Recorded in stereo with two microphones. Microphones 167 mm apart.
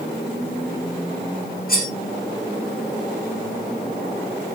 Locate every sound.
1.7 s cutlery clinking: 55° left (ahead or behind), 6.5 m